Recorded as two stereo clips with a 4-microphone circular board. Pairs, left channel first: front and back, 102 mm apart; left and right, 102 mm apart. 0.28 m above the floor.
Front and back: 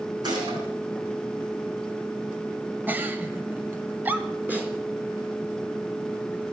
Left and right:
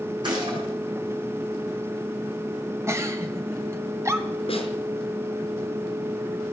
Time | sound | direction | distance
0.2 | a gunshot | 135° right | 8 m
2.9 | a giggle | 125° right | 1.7 m
4.5 | a snare drum | 110° left | 4.5 m